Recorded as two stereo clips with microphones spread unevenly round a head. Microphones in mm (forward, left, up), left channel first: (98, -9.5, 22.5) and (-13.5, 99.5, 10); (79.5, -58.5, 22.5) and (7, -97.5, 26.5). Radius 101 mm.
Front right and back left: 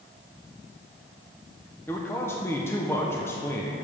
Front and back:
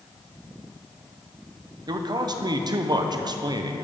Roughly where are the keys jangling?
No keys jangling in this recording.